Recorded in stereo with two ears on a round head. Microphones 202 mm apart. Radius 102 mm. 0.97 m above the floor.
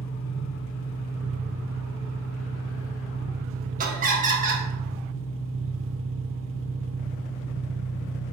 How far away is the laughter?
About 1.5 m.